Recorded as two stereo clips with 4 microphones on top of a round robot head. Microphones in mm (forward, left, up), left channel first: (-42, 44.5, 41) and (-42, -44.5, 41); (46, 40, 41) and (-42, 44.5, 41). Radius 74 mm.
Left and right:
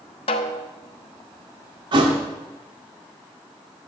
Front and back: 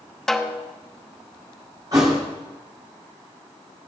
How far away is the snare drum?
About 0.8 m.